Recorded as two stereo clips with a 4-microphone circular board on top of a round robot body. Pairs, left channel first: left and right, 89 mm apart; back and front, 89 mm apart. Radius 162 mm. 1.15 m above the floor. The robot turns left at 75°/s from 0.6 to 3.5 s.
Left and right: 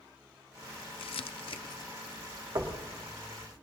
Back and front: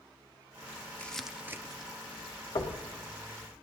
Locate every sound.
1.0 s crumpling: 110° left, 0.5 m; by 1.9 s 40° left, 0.5 m
2.5 s knocking: 140° right, 1.1 m; by 2.8 s 160° right, 1.1 m